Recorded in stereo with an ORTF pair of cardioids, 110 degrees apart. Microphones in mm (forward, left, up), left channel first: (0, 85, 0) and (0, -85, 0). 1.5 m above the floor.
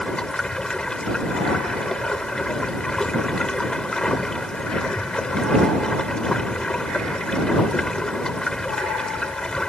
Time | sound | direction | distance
0.0 | running water | 5° left | ?